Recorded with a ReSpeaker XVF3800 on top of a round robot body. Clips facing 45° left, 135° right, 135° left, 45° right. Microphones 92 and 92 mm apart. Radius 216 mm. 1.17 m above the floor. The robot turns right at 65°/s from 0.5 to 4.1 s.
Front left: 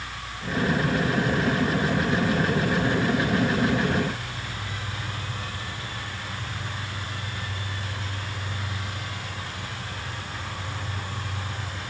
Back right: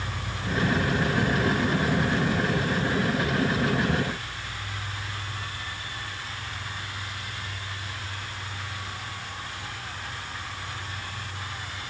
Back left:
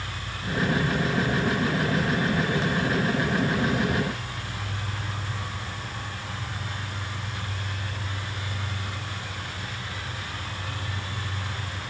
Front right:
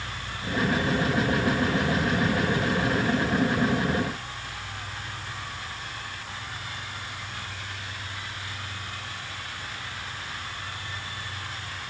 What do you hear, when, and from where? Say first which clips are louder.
0.0 s an insect: back right 2 dB, even; 145° right, 3 m; by 11.9 s 85° left, 3 m